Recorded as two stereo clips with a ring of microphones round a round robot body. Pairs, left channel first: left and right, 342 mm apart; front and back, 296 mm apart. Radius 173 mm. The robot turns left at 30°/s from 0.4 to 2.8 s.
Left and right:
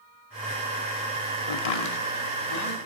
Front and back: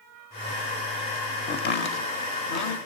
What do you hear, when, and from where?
1.5 s chopping: 65° left, 0.7 m; by 2.8 s 25° left, 0.7 m